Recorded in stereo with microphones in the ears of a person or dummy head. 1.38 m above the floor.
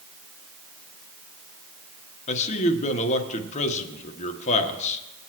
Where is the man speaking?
40° left (ahead or behind), 1.3 m.